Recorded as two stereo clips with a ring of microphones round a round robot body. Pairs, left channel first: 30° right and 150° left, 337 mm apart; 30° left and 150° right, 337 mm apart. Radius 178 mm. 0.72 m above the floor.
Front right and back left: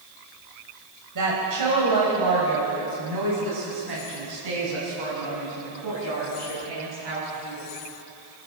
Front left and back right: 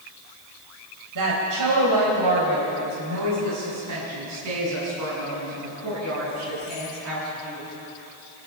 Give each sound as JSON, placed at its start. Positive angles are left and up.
{"t": 1.1, "sound": "a woman speaking", "azimuth_deg": 180, "distance_m": 4.5}